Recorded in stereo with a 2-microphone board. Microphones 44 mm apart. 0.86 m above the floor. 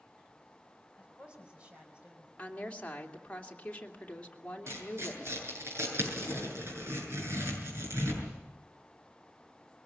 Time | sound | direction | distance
1.0 | a woman speaking | 25° right (ahead or behind) | 5.5 m
2.4 | a woman speaking | 25° left (ahead or behind) | 2.5 m
4.7 | tearing paper | 65° right (ahead or behind) | 7.5 m